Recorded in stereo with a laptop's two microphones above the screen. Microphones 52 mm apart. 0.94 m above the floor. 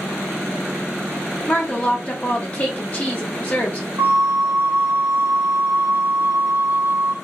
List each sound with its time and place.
1.5 s a woman speaking: 35° left (ahead or behind), 1.0 m
4.0 s a flute: 80° right, 0.9 m